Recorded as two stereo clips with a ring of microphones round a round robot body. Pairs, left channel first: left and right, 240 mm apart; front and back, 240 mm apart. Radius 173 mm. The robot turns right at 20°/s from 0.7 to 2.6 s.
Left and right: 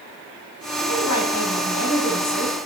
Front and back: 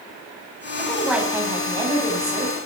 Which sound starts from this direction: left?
A woman speaking, at 0.8 s.